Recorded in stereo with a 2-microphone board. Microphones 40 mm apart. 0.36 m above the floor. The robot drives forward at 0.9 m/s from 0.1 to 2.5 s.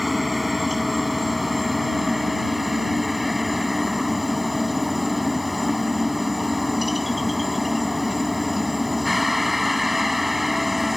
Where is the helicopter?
5° right (ahead or behind).